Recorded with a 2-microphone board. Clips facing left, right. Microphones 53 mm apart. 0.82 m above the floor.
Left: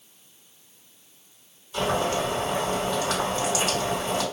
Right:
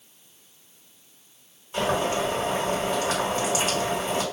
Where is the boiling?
30° right (ahead or behind), 1.4 m.